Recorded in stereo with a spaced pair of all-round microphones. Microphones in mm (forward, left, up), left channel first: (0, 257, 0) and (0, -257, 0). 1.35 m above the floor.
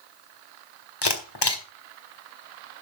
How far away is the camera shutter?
About 1.6 m.